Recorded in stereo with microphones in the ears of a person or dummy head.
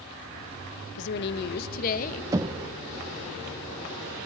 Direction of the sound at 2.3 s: 20° right (ahead or behind).